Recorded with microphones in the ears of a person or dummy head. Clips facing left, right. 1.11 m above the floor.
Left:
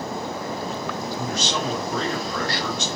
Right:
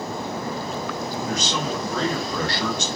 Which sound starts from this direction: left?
A man speaking, at 1.1 s.